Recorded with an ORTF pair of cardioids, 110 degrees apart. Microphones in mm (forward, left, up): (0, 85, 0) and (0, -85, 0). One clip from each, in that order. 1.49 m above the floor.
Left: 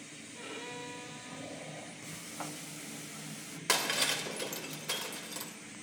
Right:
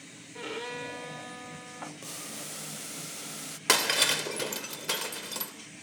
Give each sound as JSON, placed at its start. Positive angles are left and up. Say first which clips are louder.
{"t": 0.3, "sound": "a violin", "louder": "right 7 dB", "azimuth_deg": -45, "distance_m": 3.5}
{"t": 2.0, "sound": "boiling", "louder": "right 2 dB", "azimuth_deg": -40, "distance_m": 0.8}
{"t": 3.7, "sound": "breaking glass", "louder": "right 6 dB", "azimuth_deg": -35, "distance_m": 3.5}